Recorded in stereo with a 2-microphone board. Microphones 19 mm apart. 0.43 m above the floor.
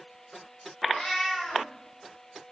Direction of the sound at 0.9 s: 65° left (ahead or behind).